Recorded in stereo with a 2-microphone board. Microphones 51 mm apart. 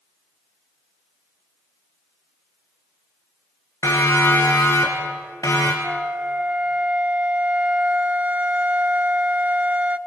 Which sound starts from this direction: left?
A siren, at 3.8 s.